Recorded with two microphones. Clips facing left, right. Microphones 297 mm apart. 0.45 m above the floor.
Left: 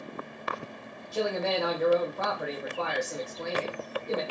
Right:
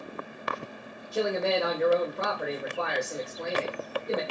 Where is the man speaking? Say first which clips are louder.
Right 2 dB; 20° right (ahead or behind), 1.2 m.